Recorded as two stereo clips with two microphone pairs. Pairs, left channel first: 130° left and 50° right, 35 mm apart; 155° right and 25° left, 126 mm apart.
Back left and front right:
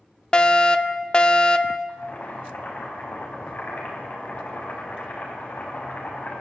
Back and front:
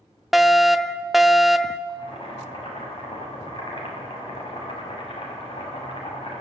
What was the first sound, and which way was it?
A fire alarm, 105° left.